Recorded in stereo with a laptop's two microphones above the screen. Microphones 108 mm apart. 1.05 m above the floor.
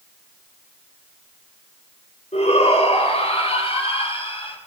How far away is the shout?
About 5 m.